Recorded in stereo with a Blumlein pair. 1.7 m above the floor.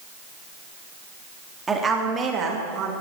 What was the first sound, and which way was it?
A woman speaking, 10° right.